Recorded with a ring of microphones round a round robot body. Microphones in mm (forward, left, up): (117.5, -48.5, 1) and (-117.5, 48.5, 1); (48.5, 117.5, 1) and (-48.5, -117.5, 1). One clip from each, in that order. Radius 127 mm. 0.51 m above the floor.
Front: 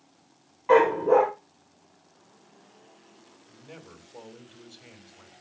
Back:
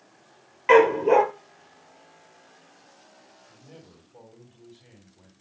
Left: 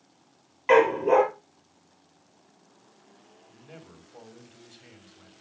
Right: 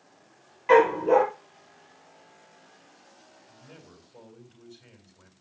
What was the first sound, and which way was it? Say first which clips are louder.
A dog barking: back 2 dB, right 1 dB; 140° left.